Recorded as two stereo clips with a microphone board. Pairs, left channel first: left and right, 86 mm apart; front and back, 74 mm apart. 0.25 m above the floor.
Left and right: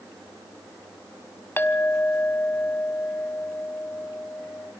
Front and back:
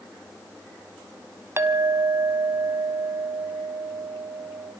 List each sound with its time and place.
1.6 s a clink: 145° left, 1.2 m